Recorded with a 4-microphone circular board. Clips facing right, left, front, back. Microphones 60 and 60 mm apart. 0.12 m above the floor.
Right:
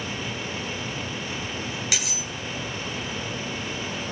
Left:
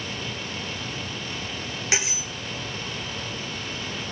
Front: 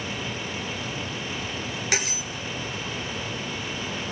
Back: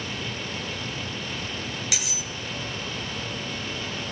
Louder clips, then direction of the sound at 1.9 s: Left 3 dB, front 5 dB; 35° left.